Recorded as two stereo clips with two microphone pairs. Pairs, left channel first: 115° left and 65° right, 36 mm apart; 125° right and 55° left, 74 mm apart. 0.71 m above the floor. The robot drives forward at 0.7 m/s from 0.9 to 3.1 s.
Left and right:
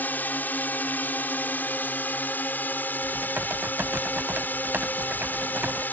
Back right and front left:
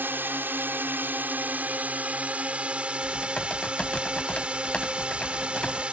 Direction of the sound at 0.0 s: 110° left.